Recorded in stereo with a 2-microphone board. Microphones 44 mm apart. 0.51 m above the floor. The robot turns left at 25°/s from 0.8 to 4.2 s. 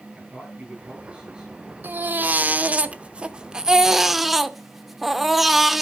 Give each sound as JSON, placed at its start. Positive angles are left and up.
{"t": 0.1, "sound": "a man speaking", "side_deg": -30, "distance_m": 4.5}
{"t": 1.8, "sound": "a baby crying", "azimuth_deg": -120, "distance_m": 0.6}